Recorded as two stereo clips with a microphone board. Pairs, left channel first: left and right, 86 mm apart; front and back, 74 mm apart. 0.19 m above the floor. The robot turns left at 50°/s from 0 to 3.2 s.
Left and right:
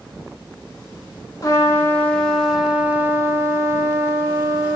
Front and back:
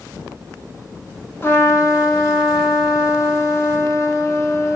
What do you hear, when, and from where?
1.4 s a trumpet: 50° left, 0.7 m; by 4.8 s 40° right, 0.7 m